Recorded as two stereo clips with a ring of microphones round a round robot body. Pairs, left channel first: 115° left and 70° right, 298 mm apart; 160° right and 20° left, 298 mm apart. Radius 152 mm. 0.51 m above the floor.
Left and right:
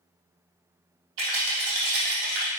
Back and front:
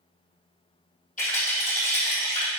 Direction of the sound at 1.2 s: 90° right.